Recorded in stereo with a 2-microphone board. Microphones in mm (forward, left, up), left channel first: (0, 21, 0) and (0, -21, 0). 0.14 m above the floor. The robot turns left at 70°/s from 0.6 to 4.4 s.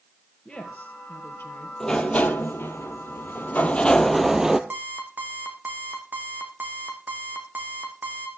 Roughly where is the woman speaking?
Behind left.